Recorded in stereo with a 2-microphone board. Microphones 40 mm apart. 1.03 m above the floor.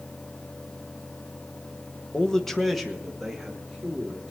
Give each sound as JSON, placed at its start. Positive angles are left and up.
{"t": 2.1, "sound": "a man speaking", "side_deg": 20, "distance_m": 1.0}